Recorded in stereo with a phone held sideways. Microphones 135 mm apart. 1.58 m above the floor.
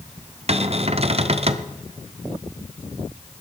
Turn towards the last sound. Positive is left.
turn(degrees=-50)  # may be behind; listen again after turning